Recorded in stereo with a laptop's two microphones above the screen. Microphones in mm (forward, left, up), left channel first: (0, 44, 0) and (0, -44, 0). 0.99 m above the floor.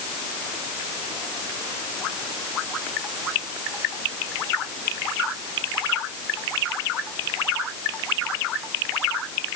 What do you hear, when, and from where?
Only background noise.